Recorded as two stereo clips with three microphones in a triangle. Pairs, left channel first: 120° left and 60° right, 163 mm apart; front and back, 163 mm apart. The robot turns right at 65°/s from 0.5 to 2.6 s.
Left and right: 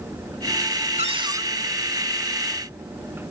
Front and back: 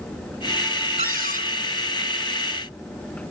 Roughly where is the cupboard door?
Ahead.